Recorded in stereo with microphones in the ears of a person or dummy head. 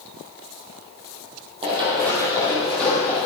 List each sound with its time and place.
1.6 s running footsteps: 30° right (ahead or behind), 3 m; by 3.2 s 10° left (ahead or behind), 3.5 m